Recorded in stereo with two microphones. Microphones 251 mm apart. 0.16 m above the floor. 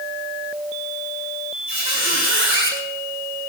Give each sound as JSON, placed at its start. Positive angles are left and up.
{"t": 1.7, "sound": "a squeak", "side_deg": 50, "distance_m": 7.0}